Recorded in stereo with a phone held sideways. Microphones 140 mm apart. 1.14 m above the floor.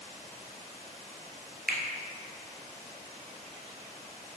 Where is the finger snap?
75° right (ahead or behind), 0.5 m.